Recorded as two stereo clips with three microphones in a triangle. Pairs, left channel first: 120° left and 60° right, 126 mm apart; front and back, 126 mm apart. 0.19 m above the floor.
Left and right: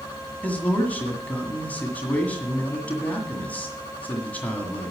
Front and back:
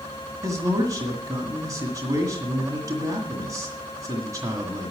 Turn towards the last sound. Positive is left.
turn(degrees=180)